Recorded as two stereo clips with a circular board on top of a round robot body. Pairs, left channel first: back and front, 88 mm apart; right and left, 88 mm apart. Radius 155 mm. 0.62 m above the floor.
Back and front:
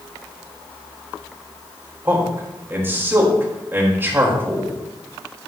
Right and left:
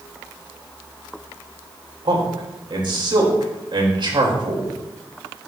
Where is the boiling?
I don't hear boiling.